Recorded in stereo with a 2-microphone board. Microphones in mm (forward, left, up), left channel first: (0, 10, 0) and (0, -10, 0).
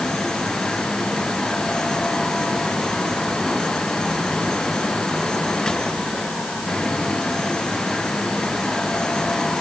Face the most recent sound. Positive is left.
No sound to turn to.